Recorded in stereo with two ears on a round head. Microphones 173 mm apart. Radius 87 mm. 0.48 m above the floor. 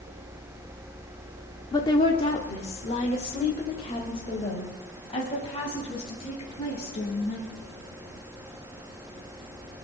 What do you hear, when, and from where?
1.7 s a woman speaking: 20° left (ahead or behind), 1.2 m; by 7.5 s 30° left (ahead or behind), 5.5 m